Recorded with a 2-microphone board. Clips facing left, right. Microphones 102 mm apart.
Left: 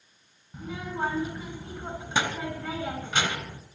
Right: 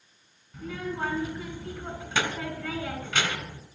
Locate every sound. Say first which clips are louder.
0.5 s a child speaking: even; 20° left (ahead or behind), 2.5 m